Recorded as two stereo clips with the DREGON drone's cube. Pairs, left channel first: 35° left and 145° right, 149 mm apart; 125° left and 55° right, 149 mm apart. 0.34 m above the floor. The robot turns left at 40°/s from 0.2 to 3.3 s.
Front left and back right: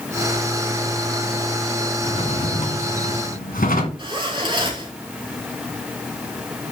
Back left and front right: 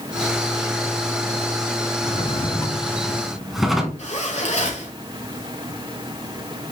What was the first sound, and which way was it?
A drawer, 85° left.